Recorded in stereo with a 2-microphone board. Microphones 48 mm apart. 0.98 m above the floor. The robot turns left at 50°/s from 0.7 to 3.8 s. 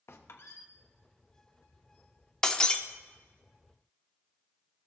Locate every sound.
0.1 s a squeak: 60° left (ahead or behind), 0.9 m
2.4 s breaking glass: 15° left (ahead or behind), 0.5 m; by 2.8 s 25° left (ahead or behind), 0.5 m